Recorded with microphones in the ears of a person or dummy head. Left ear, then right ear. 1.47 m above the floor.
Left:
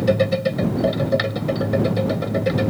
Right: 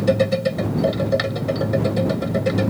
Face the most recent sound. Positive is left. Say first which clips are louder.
# even
turn(degrees=0)  # may be behind; listen again after turning